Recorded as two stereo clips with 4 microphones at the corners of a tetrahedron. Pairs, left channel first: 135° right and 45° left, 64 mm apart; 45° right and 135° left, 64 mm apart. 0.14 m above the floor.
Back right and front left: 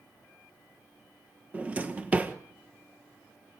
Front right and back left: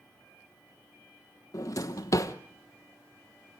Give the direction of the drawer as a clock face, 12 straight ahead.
1 o'clock.